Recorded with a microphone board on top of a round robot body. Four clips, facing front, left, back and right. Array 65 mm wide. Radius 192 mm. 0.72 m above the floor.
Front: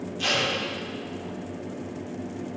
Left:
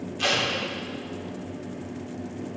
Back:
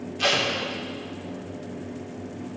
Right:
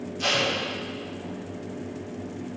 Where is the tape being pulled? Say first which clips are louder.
Even, back 3 dB; 140° left, 2.5 m.